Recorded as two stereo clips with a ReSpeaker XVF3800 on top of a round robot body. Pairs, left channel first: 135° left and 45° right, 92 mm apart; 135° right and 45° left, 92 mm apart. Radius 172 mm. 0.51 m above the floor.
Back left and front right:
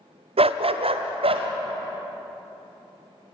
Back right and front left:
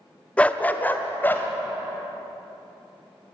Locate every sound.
0.4 s a dog barking: 55° right, 0.5 m; by 1.5 s 65° right, 1.7 m